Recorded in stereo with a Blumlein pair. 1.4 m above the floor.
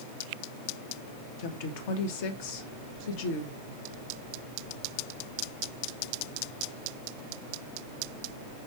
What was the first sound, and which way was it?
A woman speaking, 50° left.